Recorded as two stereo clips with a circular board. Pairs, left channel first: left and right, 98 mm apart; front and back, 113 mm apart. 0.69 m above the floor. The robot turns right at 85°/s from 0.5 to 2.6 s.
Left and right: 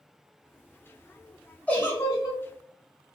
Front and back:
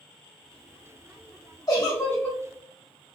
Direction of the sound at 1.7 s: 25° left.